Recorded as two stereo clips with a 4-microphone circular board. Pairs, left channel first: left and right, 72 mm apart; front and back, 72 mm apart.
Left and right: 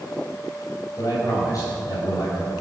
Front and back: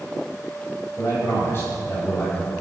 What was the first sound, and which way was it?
A man speaking, 55° left.